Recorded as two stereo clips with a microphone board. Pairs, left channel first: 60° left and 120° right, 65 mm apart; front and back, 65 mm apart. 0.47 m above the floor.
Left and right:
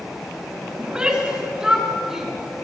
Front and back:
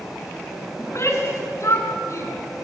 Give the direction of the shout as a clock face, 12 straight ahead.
2 o'clock.